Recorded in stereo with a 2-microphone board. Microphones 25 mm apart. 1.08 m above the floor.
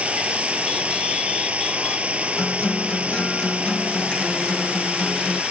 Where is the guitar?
35° left (ahead or behind).